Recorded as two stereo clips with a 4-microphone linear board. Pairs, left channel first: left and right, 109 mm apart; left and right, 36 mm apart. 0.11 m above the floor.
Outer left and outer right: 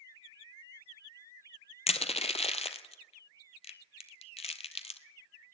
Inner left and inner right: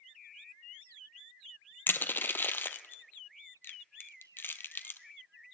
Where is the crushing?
65° left (ahead or behind), 0.7 m.